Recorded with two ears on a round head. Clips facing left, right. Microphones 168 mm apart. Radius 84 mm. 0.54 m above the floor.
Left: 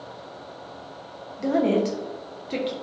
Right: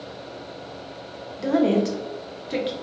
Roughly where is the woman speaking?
Centre.